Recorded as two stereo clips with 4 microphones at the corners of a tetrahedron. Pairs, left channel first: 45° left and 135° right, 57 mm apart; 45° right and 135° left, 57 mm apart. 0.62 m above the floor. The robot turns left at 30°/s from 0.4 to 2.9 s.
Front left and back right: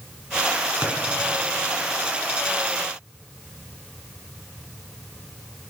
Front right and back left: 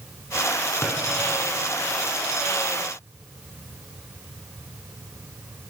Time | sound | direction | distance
0.8 | a drawer | 85° right | 3 m